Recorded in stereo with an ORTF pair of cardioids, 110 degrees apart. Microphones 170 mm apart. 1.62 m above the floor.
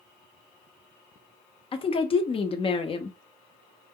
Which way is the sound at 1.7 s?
35° left.